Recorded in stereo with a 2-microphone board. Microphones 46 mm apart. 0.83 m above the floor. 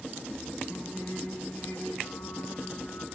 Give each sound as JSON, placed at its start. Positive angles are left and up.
{"t": 0.7, "sound": "singing", "side_deg": 65, "distance_m": 6.5}